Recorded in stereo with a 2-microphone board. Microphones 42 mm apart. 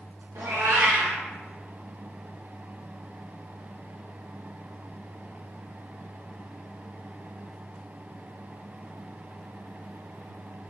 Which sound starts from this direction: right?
A cat meowing, at 0.3 s.